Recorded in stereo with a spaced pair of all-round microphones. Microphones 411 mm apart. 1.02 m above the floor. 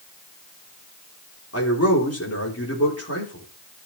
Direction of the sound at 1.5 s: 35° left (ahead or behind).